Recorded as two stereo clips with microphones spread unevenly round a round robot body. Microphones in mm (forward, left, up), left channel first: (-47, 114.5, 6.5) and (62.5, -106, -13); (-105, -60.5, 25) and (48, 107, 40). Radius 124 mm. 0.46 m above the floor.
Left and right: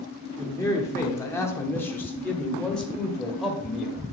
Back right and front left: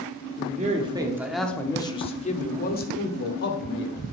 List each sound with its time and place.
0.4 s a man speaking: 40° left, 1.1 m; by 4.1 s 150° right, 2 m